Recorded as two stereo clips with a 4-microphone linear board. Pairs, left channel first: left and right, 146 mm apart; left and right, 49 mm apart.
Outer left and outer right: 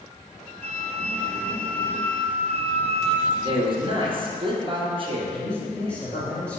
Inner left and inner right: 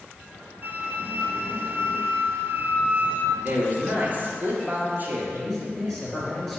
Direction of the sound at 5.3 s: 5° left (ahead or behind).